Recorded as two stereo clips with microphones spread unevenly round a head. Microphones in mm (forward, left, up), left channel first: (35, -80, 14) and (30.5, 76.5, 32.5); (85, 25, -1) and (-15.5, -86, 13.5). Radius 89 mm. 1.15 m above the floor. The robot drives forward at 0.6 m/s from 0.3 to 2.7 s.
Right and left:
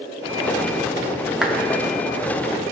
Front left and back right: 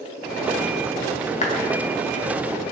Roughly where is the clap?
Ahead.